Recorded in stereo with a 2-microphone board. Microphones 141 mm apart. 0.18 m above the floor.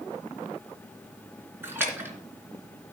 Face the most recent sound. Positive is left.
turn(degrees=-15)  # may be behind; listen again after turning